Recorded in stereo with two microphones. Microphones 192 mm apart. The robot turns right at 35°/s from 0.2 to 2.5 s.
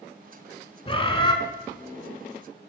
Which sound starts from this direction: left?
A bird, at 0.9 s.